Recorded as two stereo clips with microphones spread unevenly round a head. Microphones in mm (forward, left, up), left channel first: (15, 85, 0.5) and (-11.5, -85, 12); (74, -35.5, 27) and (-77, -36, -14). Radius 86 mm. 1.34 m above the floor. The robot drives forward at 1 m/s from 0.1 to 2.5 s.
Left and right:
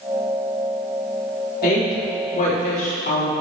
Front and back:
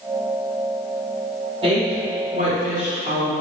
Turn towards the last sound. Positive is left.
turn(degrees=130)